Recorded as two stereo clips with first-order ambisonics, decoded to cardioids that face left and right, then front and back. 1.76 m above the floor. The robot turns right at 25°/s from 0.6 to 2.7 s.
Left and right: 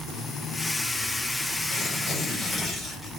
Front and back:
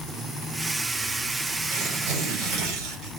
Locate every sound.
1.7 s tearing paper: 160° left, 2.5 m; by 3.1 s 175° right, 2.5 m